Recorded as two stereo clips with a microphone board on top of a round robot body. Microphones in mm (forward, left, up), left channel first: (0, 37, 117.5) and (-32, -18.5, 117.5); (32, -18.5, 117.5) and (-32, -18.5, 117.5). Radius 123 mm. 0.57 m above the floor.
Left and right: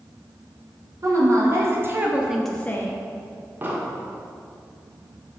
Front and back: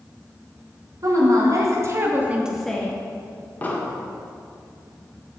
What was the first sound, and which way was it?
A woman speaking, 155° right.